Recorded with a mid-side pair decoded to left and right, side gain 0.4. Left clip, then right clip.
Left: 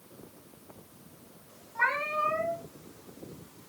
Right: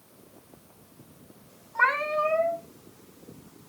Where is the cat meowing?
70° right, 3 m.